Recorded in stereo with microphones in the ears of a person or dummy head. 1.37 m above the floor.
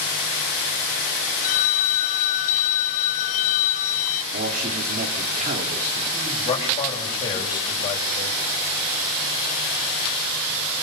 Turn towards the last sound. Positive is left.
turn(degrees=25)  # may be behind; listen again after turning